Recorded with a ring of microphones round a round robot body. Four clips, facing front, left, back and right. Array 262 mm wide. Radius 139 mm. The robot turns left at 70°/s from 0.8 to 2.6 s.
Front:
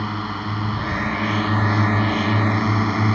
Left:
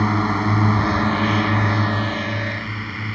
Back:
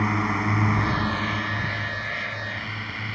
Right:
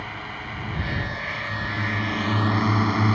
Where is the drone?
95° left; by 3.1 s 30° right.